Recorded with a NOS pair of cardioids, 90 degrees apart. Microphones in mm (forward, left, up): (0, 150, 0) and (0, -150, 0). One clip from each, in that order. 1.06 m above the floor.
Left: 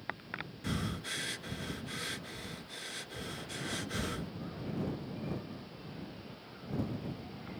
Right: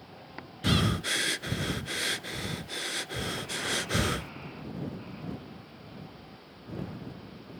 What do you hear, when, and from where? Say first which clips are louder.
0.6 s breathing: right 13 dB; 45° right